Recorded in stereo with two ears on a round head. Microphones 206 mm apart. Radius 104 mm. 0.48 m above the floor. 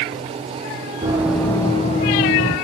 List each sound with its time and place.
1.0 s running footsteps: 15° right (ahead or behind), 1.6 m; by 2.5 s 55° left (ahead or behind), 2 m